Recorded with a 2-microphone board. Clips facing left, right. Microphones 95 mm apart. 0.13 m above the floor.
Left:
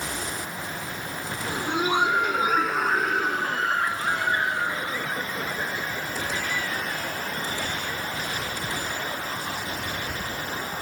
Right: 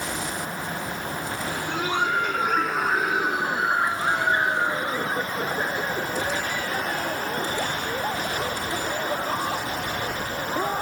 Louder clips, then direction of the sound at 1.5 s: Left 4 dB; 20° left (ahead or behind).